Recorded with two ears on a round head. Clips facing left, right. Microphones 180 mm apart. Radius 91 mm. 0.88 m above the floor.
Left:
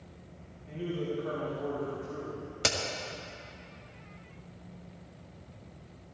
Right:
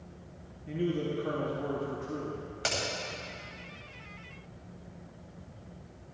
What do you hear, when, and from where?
0.7 s a man speaking: 50° right (ahead or behind), 1.7 m
2.6 s a crack: 55° left (ahead or behind), 1.6 m